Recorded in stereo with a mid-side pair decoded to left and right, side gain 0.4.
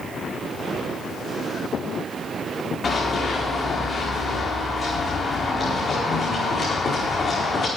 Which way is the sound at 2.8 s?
50° left.